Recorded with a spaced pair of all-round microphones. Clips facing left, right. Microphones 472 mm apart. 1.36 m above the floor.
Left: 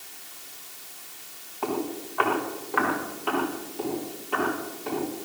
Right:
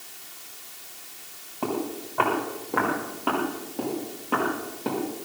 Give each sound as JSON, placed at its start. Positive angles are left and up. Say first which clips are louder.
{"t": 1.6, "sound": "footsteps", "louder": "even", "side_deg": -55, "distance_m": 7.5}